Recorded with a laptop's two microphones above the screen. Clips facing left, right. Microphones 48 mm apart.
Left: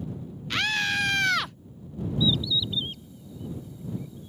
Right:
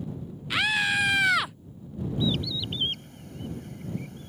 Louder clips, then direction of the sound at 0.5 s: Right 2 dB; 10° right (ahead or behind).